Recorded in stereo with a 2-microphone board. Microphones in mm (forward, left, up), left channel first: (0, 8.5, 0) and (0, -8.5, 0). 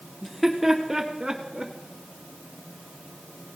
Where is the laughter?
10° left (ahead or behind), 1.3 m; by 1.7 s 35° right (ahead or behind), 1.8 m.